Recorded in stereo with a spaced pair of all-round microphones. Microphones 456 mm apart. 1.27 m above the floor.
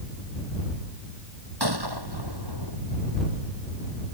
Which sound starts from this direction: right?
A gunshot, at 1.6 s.